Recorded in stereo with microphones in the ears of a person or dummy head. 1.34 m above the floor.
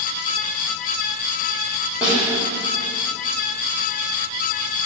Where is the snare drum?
5° right (ahead or behind), 2 m.